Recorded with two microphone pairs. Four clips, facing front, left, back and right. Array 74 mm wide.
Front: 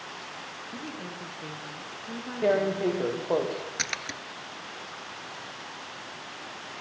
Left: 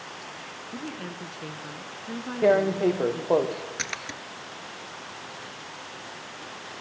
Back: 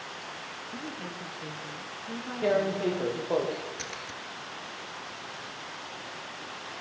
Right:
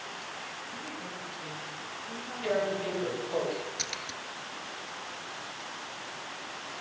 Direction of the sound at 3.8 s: 40° left.